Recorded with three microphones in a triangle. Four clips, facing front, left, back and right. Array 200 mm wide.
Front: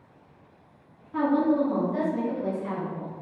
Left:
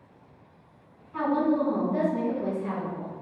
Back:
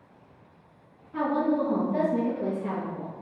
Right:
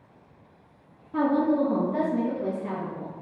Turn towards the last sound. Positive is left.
turn(degrees=175)